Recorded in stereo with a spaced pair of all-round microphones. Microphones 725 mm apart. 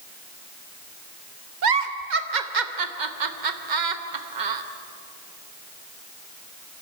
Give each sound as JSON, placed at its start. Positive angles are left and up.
{"t": 1.6, "sound": "a giggle", "side_deg": -85, "distance_m": 1.2}